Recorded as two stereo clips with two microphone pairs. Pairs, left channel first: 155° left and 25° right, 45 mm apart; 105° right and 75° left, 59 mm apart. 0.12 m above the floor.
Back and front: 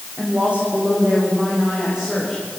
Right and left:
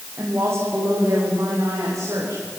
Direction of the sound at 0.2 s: 30° left.